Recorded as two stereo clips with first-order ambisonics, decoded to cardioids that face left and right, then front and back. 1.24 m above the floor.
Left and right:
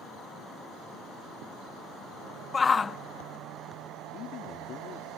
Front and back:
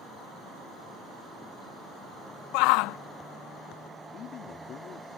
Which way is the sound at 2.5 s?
15° left.